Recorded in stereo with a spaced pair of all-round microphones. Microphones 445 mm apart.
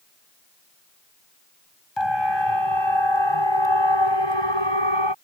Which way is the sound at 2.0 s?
85° left.